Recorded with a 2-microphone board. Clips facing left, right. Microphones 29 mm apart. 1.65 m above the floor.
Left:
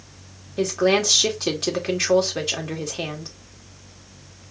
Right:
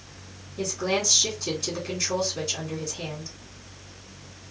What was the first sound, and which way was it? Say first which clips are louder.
A woman speaking: left 7 dB; 80° left.